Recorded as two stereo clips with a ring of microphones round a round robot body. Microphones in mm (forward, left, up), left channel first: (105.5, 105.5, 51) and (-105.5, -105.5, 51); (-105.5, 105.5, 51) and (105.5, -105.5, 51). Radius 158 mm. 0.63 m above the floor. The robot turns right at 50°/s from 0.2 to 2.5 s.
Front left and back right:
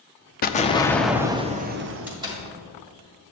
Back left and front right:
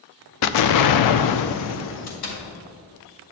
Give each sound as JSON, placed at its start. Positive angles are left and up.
{"t": 0.4, "sound": "an explosion", "azimuth_deg": 105, "distance_m": 0.5}
{"t": 2.1, "sound": "a door slam", "azimuth_deg": 140, "distance_m": 2.0}